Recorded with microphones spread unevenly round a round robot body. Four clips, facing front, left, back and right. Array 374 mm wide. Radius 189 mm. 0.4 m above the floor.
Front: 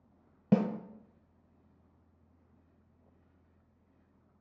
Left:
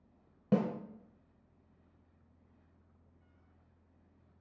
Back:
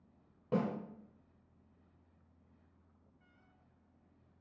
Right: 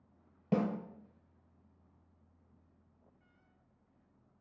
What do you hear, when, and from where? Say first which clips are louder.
0.5 s a snare drum: left 1 dB, front 6 dB; 5° left, 0.6 m